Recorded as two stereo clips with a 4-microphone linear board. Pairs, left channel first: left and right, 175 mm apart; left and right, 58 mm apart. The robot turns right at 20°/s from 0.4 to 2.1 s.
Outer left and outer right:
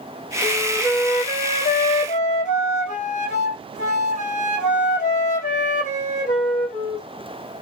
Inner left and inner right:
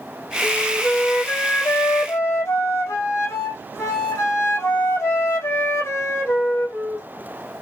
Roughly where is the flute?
Ahead.